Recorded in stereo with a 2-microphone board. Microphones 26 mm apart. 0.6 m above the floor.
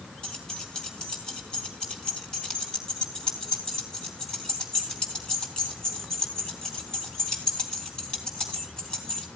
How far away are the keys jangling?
About 3 m.